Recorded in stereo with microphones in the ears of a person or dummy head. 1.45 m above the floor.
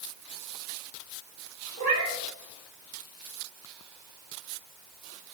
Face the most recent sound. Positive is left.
turn(degrees=-40)  # may be behind; listen again after turning